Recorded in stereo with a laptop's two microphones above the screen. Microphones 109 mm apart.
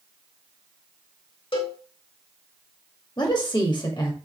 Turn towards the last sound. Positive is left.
turn(degrees=40)  # may be behind; listen again after turning